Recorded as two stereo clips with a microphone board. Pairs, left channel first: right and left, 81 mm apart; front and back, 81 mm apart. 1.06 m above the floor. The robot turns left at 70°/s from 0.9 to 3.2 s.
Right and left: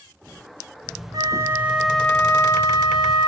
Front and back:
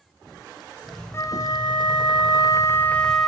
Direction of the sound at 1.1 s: 55° left.